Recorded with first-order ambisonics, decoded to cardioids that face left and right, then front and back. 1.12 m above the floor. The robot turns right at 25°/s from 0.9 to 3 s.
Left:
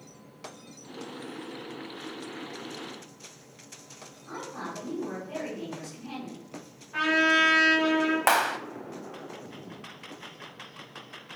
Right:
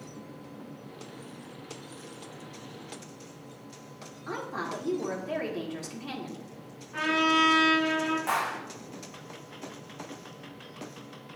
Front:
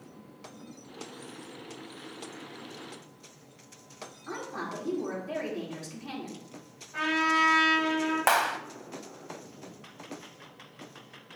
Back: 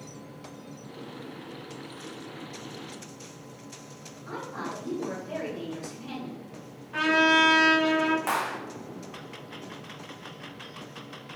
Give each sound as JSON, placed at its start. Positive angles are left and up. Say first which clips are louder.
{"t": 4.3, "sound": "a woman speaking", "louder": "right 4 dB, back 1 dB", "azimuth_deg": -85, "distance_m": 3.0}
{"t": 6.9, "sound": "a trumpet", "louder": "left 2 dB, back 5 dB", "azimuth_deg": 170, "distance_m": 3.0}
{"t": 8.3, "sound": "a clap", "louder": "left 6 dB, front 4 dB", "azimuth_deg": 55, "distance_m": 0.8}